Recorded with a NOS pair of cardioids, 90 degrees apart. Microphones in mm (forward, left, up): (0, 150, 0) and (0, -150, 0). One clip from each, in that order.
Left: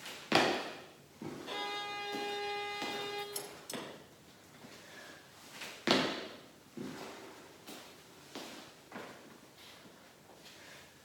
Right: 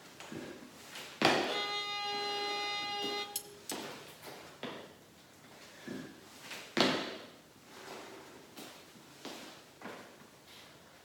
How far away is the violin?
About 1.4 m.